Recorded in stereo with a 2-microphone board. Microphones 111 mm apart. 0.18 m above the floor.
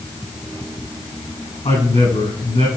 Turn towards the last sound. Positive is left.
turn(degrees=75)  # may be behind; listen again after turning